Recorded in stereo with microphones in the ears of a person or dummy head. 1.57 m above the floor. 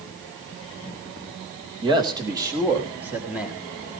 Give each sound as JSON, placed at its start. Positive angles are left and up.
{"t": 1.8, "sound": "a man speaking", "side_deg": -25, "distance_m": 2.5}